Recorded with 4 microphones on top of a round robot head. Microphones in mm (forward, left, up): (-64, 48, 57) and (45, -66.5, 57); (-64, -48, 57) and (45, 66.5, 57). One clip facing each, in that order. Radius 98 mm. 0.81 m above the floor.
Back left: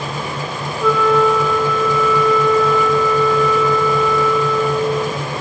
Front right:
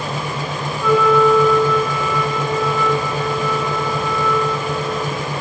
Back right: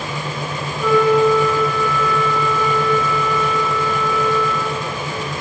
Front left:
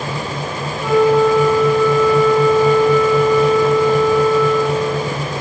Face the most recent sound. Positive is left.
turn(degrees=-10)